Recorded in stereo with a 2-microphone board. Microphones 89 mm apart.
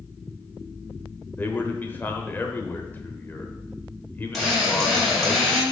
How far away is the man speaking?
About 1.0 m.